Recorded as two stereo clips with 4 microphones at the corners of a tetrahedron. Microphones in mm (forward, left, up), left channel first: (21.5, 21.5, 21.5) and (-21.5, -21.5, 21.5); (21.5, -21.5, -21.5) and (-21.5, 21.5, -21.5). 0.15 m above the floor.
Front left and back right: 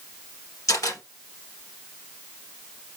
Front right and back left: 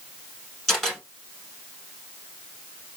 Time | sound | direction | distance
0.7 | a camera shutter | 35° left | 3.5 m